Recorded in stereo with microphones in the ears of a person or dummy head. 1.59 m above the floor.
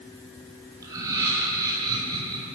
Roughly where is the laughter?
Centre.